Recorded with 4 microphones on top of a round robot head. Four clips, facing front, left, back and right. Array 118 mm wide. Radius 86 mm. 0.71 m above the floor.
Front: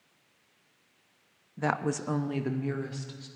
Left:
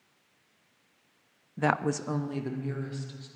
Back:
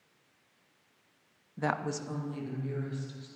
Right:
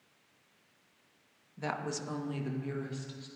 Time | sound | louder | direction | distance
1.6 | a woman speaking | left 9 dB, front 3 dB | 100° left | 0.8 m